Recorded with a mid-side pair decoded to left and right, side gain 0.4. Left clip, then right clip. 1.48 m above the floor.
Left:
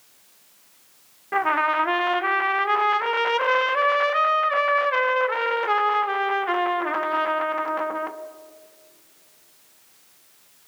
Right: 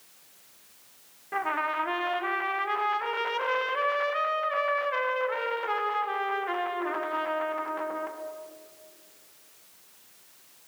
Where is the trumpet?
55° left, 1.1 m.